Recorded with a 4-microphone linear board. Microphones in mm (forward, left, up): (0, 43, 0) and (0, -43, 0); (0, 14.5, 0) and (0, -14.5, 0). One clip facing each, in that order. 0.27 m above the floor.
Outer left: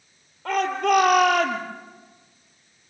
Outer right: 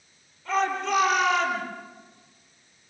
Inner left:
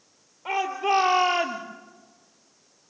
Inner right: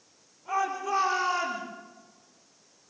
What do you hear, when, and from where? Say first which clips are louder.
0.5 s a shout: outer left 4 dB, inner left 4 dB; 70° left (ahead or behind), 6 m